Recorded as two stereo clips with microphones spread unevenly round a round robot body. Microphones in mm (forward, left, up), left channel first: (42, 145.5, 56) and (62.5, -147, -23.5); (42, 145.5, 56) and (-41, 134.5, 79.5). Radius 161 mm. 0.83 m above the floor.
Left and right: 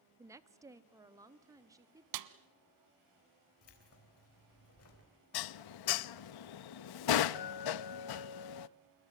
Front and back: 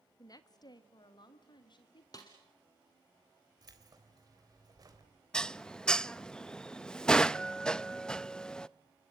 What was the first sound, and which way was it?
A woman speaking, 15° right.